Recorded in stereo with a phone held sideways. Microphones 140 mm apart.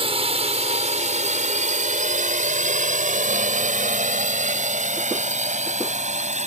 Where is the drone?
45° right (ahead or behind); by 6.5 s 60° right (ahead or behind).